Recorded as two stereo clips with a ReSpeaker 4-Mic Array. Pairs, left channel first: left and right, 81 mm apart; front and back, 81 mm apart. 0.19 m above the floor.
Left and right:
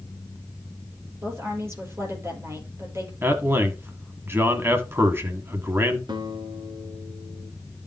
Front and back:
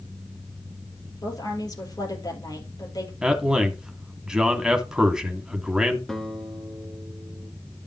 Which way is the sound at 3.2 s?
110° right.